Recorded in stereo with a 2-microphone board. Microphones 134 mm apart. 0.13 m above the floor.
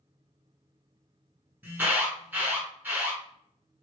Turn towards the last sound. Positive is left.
turn(degrees=-15)  # may be behind; listen again after turning